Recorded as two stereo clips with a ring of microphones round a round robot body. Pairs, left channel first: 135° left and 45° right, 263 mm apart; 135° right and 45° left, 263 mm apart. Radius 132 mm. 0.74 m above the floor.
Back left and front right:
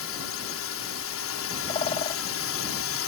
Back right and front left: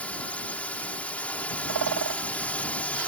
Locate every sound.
0.0 s a drone: 140° left
1.7 s a bird: 65° left